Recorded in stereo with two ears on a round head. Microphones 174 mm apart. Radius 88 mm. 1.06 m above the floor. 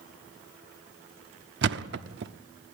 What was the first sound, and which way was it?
A thud, 55° right (ahead or behind).